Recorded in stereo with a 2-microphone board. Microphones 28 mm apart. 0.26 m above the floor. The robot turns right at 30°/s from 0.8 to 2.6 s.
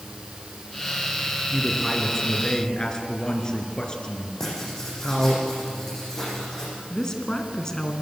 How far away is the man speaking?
About 3.5 m.